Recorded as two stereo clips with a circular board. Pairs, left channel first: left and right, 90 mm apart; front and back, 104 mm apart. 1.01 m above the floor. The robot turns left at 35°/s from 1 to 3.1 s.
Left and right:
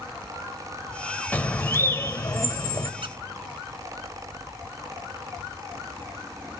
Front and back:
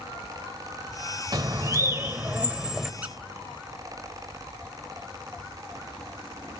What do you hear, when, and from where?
1.3 s a bird: 150° left, 0.9 m; by 2.9 s 95° left, 0.9 m
3.0 s a squeak: 105° right, 0.9 m